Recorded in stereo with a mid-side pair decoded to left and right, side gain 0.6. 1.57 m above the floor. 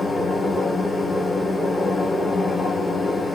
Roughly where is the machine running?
Ahead.